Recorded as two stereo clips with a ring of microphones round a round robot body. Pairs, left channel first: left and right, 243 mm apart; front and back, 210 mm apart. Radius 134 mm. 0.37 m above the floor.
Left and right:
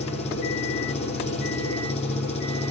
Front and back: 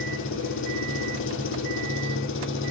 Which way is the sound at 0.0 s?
25° left.